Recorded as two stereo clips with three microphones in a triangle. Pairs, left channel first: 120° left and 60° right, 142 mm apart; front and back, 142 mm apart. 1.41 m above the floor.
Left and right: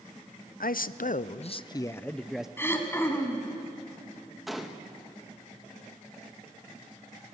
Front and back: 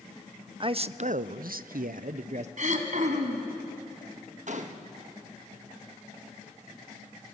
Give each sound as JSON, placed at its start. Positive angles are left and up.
{"t": 0.6, "sound": "a man speaking", "azimuth_deg": 125, "distance_m": 0.7}
{"t": 2.6, "sound": "throat clearing", "azimuth_deg": -170, "distance_m": 2.5}
{"t": 4.5, "sound": "a gunshot", "azimuth_deg": -150, "distance_m": 1.4}